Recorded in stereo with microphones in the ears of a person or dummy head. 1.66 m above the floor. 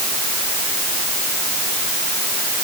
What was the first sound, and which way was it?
Only background noise.